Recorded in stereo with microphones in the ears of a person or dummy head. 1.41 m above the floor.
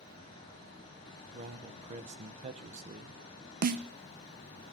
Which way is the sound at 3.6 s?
50° right (ahead or behind).